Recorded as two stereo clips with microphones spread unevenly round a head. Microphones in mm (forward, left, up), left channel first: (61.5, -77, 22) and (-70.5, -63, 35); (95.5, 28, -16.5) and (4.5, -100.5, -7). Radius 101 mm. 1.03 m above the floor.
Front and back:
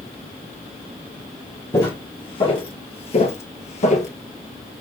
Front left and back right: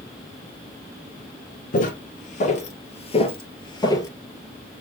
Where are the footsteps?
65° left, 1.4 m; by 4.1 s 10° right, 1.3 m.